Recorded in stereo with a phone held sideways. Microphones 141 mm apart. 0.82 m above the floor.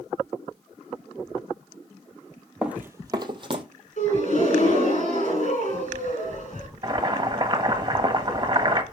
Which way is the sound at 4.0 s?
60° left (ahead or behind).